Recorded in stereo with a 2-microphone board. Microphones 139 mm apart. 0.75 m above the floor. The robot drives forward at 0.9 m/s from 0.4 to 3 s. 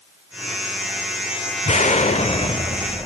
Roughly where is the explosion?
Left.